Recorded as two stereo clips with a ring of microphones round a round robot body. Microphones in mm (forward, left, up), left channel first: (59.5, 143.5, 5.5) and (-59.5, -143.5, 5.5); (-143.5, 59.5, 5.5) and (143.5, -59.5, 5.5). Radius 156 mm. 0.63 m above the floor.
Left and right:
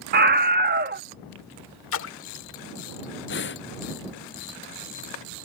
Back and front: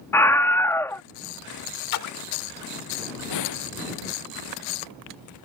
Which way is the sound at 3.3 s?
125° left.